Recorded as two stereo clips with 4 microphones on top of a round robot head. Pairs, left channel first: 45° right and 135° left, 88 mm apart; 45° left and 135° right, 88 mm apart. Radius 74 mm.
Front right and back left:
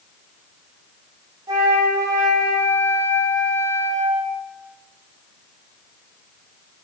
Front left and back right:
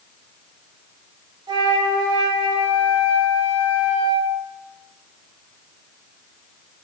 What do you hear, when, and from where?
1.5 s a flute: 175° right, 1.2 m